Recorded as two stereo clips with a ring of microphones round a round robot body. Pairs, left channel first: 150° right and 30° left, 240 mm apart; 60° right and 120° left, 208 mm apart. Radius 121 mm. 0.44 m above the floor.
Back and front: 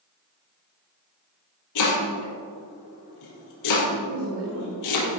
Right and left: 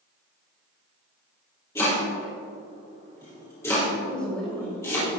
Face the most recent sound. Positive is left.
turn(degrees=25)